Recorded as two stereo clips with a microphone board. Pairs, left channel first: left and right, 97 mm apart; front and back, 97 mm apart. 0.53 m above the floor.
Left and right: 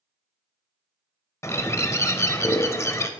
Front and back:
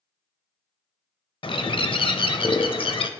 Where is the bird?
30° left, 0.6 m.